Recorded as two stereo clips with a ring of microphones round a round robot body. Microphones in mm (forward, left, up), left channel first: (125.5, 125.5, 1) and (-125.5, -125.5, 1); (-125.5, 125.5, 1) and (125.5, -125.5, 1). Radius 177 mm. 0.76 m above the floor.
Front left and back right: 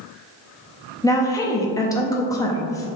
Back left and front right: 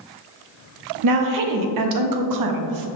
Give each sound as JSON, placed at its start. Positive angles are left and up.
{"t": 1.0, "sound": "a woman speaking", "azimuth_deg": -35, "distance_m": 0.5}